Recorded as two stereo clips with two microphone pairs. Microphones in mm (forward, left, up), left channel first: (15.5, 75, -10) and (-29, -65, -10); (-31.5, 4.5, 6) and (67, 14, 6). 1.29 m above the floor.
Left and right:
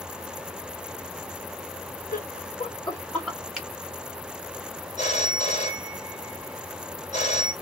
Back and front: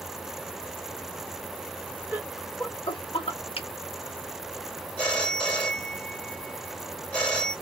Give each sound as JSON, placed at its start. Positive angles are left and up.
{"t": 2.1, "sound": "laughter", "azimuth_deg": 75, "distance_m": 1.1}
{"t": 3.5, "sound": "a finger snap", "azimuth_deg": 165, "distance_m": 1.3}
{"t": 5.0, "sound": "a phone ringing", "azimuth_deg": 105, "distance_m": 1.4}